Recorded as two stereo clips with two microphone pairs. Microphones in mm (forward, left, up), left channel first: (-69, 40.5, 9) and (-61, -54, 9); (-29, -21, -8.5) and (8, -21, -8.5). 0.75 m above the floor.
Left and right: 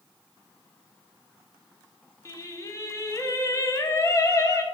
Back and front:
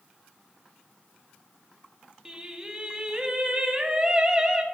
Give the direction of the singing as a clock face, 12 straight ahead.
10 o'clock.